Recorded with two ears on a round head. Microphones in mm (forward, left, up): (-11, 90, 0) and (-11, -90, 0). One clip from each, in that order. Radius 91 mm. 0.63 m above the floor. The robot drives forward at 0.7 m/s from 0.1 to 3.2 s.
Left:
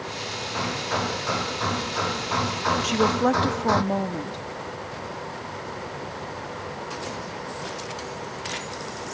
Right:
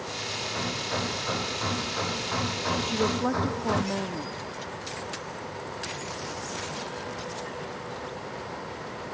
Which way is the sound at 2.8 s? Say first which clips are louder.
Left 7 dB; 40° left (ahead or behind).